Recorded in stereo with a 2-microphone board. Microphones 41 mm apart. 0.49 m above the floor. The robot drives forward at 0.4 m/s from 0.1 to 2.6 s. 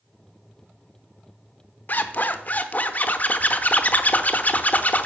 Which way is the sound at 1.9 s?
50° left (ahead or behind).